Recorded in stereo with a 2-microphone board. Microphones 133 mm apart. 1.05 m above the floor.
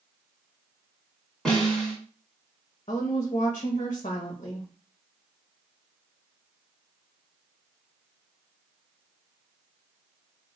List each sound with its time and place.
1.4 s a snare drum: 5° left (ahead or behind), 2 m
2.9 s a woman speaking: 55° left (ahead or behind), 0.9 m